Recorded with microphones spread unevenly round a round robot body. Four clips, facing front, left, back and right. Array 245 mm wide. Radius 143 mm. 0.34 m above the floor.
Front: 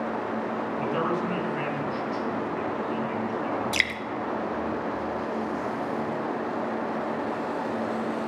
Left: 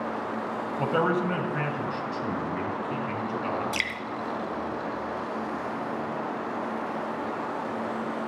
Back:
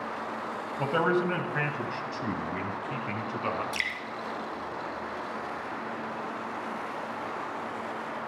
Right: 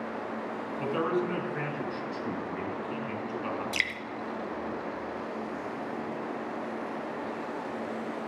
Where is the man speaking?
110° left, 2.5 m; by 3.6 s 155° left, 4.5 m.